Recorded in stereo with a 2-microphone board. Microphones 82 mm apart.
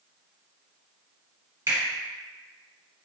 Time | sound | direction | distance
1.7 | a finger snap | 35° right (ahead or behind) | 1.7 m